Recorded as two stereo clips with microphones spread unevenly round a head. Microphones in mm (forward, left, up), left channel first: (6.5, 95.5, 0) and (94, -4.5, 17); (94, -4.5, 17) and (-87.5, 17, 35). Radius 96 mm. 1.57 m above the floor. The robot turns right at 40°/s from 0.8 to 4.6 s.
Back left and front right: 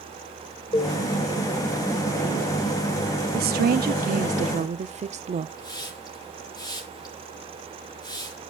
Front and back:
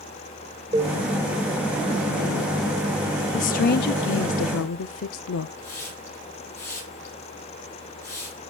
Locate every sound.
0.7 s a cowbell: 170° left, 1.5 m; by 1.0 s straight behind, 1.5 m
3.3 s a woman speaking: 60° right, 0.6 m; by 5.5 s 10° right, 0.6 m
5.6 s a hiss: 70° left, 9 m